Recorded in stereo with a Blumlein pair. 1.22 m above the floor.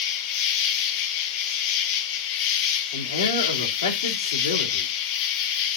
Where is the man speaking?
70° left, 2.5 m.